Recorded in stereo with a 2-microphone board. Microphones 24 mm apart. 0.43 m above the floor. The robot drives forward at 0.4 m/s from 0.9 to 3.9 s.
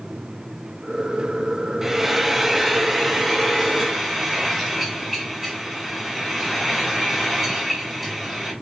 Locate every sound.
1.8 s frying: 15° right (ahead or behind), 0.6 m; by 8.5 s 5° right (ahead or behind), 1.4 m